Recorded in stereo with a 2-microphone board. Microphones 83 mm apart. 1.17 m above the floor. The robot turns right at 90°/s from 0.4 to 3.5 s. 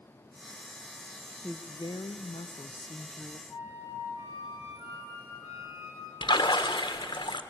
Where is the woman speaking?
10° left, 0.7 m; by 3.4 s 170° right, 0.7 m.